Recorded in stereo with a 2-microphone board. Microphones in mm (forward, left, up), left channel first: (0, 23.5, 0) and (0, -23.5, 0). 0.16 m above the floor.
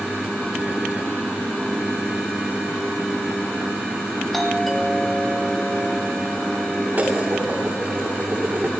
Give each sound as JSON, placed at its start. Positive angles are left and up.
{"t": 4.3, "sound": "a doorbell", "side_deg": 5, "distance_m": 4.5}
{"t": 6.9, "sound": "dishes clattering", "side_deg": -40, "distance_m": 7.5}